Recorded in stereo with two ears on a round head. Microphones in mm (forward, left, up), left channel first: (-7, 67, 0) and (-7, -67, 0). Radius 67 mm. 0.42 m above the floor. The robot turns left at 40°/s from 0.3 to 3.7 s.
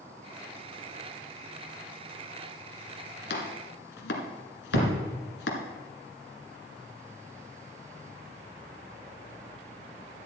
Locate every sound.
3.3 s chopping: 75° left (ahead or behind), 1.6 m; by 5.6 s 90° left, 1.6 m
4.7 s a thud: 80° right, 4.5 m